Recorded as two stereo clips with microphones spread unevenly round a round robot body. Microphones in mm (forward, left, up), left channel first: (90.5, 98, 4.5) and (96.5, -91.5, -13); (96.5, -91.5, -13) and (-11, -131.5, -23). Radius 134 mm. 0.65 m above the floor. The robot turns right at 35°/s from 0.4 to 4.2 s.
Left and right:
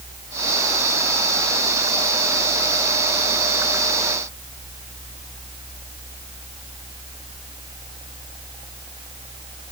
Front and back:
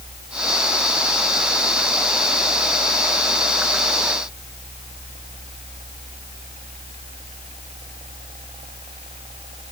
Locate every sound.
Only background noise.